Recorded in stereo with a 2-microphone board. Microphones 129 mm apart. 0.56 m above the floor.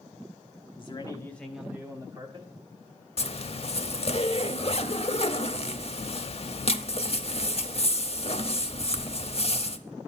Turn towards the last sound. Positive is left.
turn(degrees=50)  # may be behind; listen again after turning